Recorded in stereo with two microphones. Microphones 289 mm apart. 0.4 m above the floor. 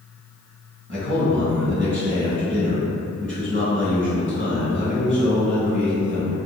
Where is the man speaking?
40° right (ahead or behind), 1.6 m.